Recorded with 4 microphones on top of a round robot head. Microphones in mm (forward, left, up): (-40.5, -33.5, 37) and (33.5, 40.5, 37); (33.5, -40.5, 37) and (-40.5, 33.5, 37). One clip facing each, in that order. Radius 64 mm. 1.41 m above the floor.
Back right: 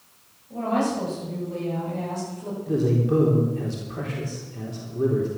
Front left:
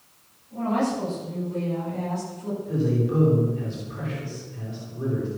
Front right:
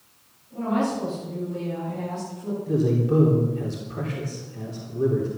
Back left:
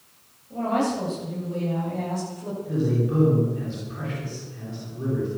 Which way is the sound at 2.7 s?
90° right.